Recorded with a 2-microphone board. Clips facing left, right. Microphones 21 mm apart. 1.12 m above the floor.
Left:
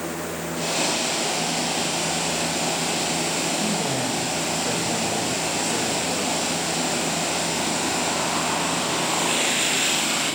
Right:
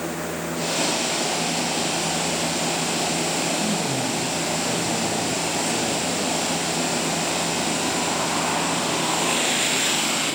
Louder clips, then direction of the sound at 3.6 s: Even; 40° left (ahead or behind).